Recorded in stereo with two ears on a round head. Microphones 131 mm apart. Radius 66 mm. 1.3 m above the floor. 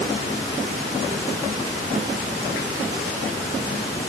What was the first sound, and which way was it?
Only background noise.